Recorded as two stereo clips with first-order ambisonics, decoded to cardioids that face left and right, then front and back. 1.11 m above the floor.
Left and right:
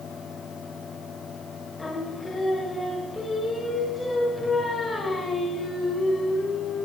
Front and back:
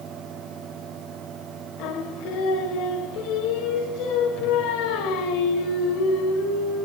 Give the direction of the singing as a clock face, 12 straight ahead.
12 o'clock.